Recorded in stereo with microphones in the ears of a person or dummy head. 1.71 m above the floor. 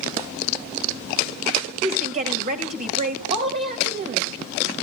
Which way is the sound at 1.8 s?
40° right (ahead or behind).